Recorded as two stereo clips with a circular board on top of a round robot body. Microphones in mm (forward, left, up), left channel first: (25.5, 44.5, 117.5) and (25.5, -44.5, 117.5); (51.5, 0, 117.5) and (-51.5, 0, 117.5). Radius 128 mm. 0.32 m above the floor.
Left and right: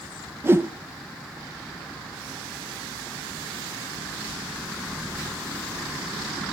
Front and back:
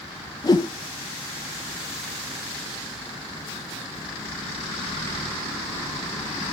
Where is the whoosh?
35° right, 1.2 m.